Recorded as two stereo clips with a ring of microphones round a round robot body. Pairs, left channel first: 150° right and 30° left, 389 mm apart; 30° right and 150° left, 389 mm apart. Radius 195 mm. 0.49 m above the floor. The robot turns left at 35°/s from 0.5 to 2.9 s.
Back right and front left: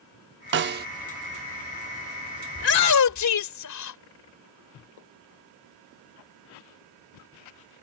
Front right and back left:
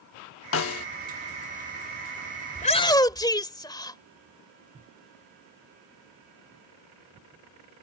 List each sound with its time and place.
0.5 s a snare drum: 5° right; by 0.9 s 20° right
2.5 s a shout: 95° right; by 4.0 s 110° right